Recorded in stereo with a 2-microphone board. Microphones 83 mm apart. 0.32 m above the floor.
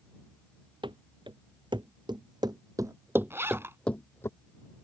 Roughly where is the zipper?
Right.